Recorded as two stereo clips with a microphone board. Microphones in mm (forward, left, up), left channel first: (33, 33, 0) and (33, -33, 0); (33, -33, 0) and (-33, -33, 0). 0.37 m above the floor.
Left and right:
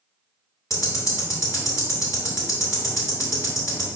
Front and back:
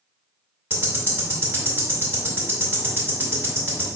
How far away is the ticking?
About 1.9 m.